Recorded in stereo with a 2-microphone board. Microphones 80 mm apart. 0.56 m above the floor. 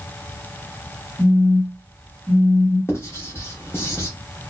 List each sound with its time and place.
1.2 s a phone buzzing: 5° left (ahead or behind), 1.3 m
2.9 s writing: 30° left (ahead or behind), 0.8 m